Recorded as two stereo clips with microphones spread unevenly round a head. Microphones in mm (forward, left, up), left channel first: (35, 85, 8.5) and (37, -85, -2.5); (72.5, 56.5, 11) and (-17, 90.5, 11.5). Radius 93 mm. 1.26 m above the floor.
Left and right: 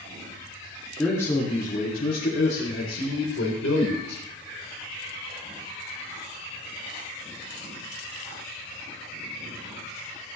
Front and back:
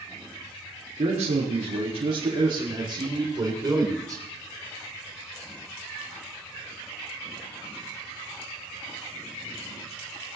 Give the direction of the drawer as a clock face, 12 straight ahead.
No drawer in this recording.